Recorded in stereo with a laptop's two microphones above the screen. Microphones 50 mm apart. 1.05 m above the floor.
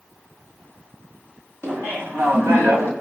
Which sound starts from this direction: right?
Laughter, at 1.6 s.